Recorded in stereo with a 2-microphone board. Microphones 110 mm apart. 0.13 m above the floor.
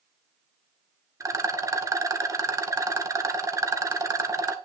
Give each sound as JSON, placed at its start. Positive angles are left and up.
{"t": 1.2, "sound": "a rattle", "side_deg": -30, "distance_m": 0.9}